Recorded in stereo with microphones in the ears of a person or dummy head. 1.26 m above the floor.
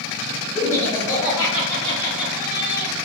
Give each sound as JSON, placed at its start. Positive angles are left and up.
{"t": 0.6, "sound": "laughter", "side_deg": -10, "distance_m": 1.4}